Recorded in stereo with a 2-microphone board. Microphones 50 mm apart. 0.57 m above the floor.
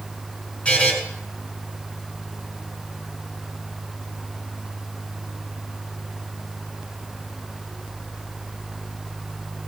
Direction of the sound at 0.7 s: 25° left (ahead or behind).